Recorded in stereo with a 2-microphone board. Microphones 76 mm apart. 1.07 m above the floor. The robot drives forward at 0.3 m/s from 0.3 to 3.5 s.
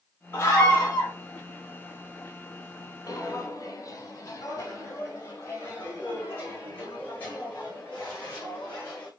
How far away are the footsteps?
About 1.6 m.